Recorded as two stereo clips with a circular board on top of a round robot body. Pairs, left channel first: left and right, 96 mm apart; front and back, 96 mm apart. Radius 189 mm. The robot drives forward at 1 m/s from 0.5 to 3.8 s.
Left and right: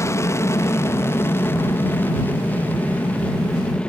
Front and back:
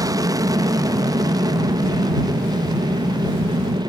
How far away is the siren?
No siren in this recording.